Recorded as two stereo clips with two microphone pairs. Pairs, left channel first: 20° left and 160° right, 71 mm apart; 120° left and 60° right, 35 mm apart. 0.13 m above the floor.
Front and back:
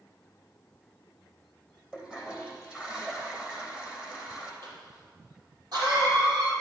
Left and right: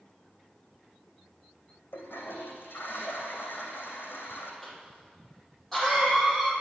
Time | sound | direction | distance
1.9 | a toilet flushing | 120° left | 2.5 m
4.6 | a cough | 155° right | 5.5 m